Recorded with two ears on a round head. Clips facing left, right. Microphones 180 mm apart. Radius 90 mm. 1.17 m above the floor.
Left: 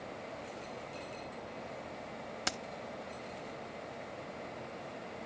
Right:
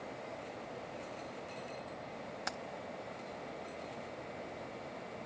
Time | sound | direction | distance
2.5 | keys jangling | 40° left (ahead or behind) | ?